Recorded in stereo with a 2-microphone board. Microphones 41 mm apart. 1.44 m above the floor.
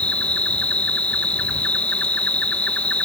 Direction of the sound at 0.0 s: 30° left (ahead or behind).